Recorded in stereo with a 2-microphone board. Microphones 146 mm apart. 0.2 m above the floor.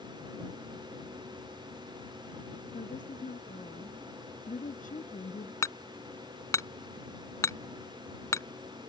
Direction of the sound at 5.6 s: 20° left (ahead or behind).